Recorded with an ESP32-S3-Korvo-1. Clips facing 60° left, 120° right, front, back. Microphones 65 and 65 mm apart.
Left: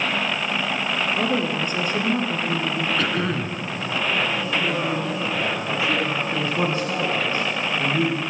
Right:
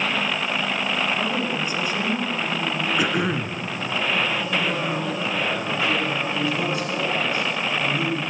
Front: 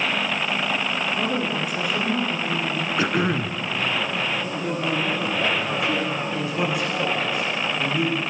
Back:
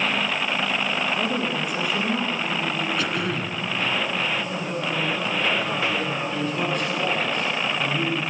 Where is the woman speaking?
90° left, 1.9 m.